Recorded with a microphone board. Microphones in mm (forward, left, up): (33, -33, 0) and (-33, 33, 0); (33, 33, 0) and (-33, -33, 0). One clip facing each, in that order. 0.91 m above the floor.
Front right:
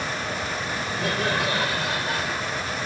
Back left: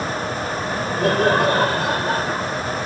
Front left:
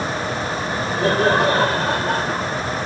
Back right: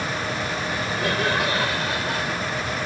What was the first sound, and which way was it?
Laughter, 100° left.